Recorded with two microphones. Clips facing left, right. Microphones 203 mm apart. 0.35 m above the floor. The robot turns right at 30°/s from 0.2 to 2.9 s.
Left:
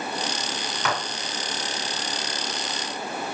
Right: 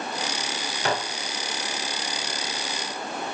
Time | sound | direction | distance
0.8 | dishes clattering | 35° right (ahead or behind) | 0.8 m